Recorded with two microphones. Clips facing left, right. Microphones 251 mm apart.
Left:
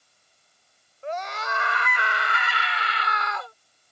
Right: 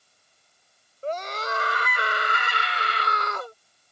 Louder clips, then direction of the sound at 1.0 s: Right 2 dB; 40° right (ahead or behind).